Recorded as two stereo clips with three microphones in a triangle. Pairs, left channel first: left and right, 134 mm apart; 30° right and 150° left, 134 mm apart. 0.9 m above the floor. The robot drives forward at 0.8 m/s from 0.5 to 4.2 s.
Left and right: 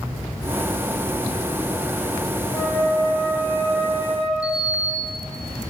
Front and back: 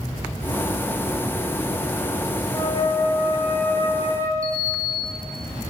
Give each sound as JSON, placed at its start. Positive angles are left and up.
{"t": 2.5, "sound": "a flute", "azimuth_deg": 25, "distance_m": 4.5}
{"t": 4.4, "sound": "a sliding door", "azimuth_deg": 150, "distance_m": 1.5}